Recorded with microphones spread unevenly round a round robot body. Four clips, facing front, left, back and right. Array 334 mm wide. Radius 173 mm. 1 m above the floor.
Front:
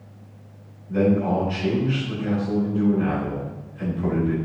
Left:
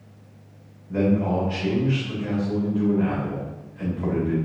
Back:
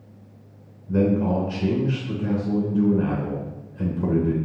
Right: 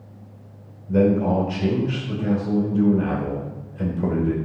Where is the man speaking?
135° right, 3.5 m.